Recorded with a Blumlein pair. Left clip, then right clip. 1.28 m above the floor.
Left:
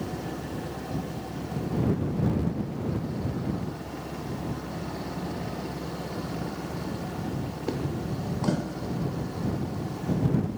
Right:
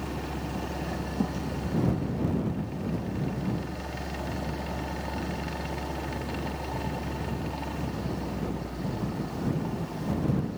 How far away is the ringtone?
No ringtone in this recording.